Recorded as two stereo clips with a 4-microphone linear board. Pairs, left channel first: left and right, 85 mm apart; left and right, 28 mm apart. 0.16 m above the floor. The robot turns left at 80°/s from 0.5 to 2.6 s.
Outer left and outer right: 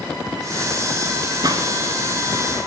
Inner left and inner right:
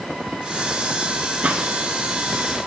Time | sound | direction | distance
1.4 | a gunshot | 55° right (ahead or behind) | 1.0 m